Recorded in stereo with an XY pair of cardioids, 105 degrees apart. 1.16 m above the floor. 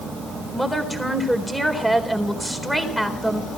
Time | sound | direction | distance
0.5 | a woman speaking | straight ahead | 4 m